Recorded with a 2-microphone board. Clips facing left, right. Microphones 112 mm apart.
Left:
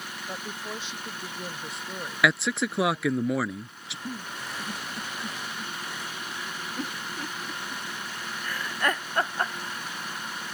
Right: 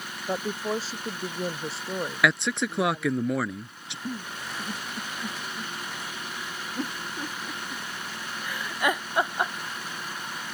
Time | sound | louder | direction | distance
0.3 | a woman speaking | right 10 dB | 40° right (ahead or behind) | ?
2.2 | a man speaking | left 1 dB | centre (ahead or behind) | ?
4.0 | a giggle | right 2 dB | 10° right (ahead or behind) | ?